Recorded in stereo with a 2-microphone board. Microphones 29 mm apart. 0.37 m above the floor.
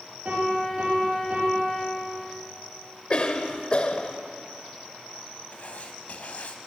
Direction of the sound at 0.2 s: 55° right (ahead or behind).